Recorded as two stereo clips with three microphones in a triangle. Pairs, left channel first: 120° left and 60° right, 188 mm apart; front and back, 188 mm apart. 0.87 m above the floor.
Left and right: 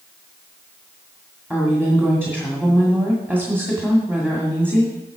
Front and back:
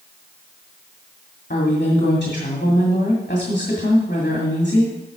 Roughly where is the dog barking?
No dog barking in this recording.